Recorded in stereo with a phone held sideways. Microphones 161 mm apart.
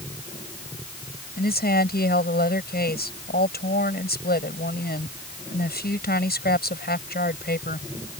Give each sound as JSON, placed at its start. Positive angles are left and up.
{"t": 1.4, "sound": "a woman speaking", "side_deg": 80}